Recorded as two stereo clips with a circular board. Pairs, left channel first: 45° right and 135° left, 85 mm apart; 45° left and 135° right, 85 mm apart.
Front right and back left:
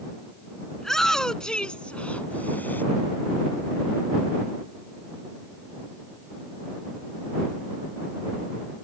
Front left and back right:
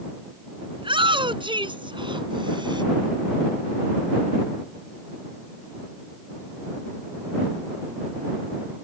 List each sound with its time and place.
0.8 s a shout: 130° right; by 2.8 s 115° right